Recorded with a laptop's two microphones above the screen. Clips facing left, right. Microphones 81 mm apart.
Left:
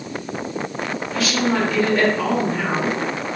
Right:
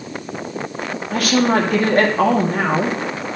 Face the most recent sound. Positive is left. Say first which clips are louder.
# right 5 dB
turn(degrees=-55)  # may be behind; listen again after turning